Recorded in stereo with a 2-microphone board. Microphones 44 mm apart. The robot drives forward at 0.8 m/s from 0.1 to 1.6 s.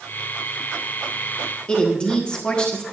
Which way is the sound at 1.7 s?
25° left (ahead or behind).